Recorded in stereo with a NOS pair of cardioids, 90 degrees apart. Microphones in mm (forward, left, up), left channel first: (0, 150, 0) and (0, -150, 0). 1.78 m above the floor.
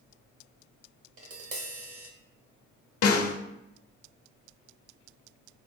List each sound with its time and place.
1.2 s tapping: 50° right, 1.0 m
3.0 s a snare drum: 50° left, 0.7 m